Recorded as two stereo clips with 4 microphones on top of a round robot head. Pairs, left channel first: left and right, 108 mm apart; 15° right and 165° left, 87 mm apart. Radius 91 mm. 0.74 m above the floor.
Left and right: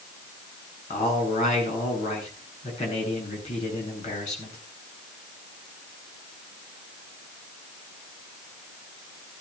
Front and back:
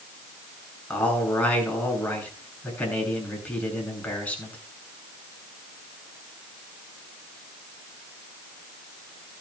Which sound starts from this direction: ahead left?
A man speaking, at 0.9 s.